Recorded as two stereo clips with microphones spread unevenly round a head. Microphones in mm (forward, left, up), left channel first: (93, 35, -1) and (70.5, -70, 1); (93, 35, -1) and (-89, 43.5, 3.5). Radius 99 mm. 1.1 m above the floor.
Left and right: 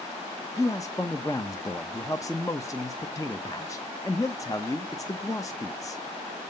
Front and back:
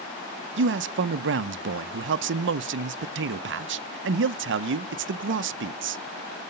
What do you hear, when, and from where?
0.6 s a man speaking: 155° left, 0.5 m